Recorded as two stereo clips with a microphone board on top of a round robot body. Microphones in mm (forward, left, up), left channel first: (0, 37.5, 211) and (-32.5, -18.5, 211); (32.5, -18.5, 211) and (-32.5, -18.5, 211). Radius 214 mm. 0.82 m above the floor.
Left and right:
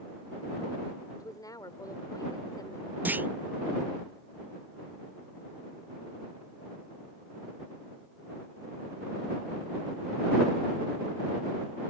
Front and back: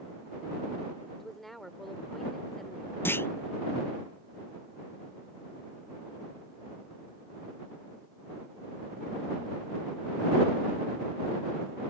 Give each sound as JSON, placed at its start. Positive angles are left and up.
{"t": 1.1, "sound": "a woman speaking", "azimuth_deg": 85}
{"t": 3.0, "sound": "a clunk", "azimuth_deg": -55}